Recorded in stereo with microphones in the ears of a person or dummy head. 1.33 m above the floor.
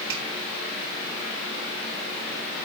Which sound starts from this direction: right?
A finger snap, at 0.1 s.